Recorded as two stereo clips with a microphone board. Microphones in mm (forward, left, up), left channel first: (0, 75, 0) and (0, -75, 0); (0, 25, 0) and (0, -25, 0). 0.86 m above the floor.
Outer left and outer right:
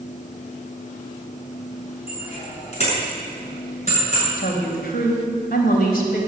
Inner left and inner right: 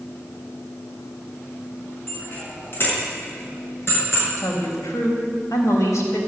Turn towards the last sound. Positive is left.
turn(degrees=80)